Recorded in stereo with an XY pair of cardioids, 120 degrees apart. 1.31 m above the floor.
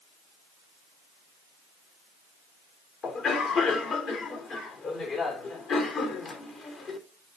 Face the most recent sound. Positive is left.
turn(degrees=55)